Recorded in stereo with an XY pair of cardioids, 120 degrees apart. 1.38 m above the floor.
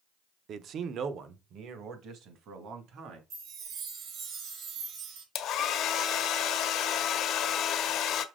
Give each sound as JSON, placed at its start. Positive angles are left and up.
{"t": 0.5, "sound": "a man speaking", "azimuth_deg": -50, "distance_m": 0.7}
{"t": 3.3, "sound": "a chime", "azimuth_deg": -70, "distance_m": 2.5}
{"t": 5.3, "sound": "a hair dryer", "azimuth_deg": 65, "distance_m": 1.0}